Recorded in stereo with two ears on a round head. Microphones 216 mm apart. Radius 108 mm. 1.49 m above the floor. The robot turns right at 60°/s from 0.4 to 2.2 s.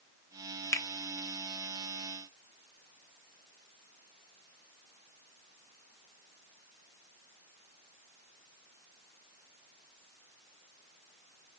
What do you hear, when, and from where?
0.7 s a finger snap: 10° left (ahead or behind), 0.6 m; by 0.9 s 20° left (ahead or behind), 0.6 m